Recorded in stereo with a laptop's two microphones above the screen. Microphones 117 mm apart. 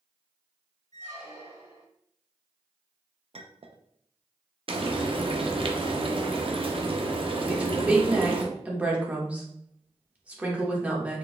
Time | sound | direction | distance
0.9 | a squeak | 80° right | 1.5 m
3.3 | a clink | 60° right (ahead or behind) | 0.5 m
4.7 | frying | 50° right (ahead or behind) | 0.6 m
7.5 | a woman speaking | 15° right (ahead or behind) | 1.2 m